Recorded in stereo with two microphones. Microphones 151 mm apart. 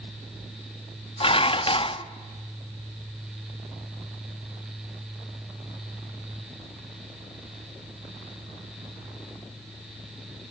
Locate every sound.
1.2 s dishes clattering: 35° left (ahead or behind), 0.5 m